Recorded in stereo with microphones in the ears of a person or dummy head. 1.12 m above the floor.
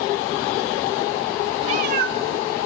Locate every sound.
1.6 s a cat meowing: 35° right (ahead or behind), 0.5 m; by 2.7 s 75° right (ahead or behind), 1.4 m